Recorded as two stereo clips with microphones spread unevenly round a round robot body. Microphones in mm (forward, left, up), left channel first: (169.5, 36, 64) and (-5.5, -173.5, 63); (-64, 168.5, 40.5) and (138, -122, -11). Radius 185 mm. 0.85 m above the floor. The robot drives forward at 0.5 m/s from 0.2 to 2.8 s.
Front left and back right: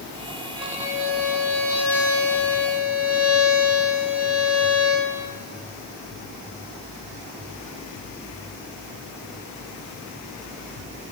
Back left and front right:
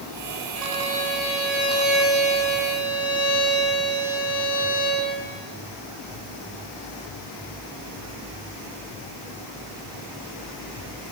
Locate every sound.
0.6 s a violin: 145° left, 8 m; by 5.1 s 150° left, 9 m